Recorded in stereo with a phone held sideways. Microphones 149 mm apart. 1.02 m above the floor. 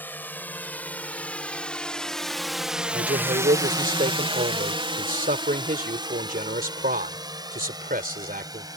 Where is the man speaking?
75° right (ahead or behind).